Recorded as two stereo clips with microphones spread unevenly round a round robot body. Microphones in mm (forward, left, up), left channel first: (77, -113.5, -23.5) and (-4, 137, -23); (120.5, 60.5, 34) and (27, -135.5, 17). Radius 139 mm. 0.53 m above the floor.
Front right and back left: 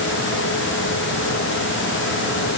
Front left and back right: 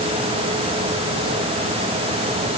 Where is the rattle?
I don't hear a rattle.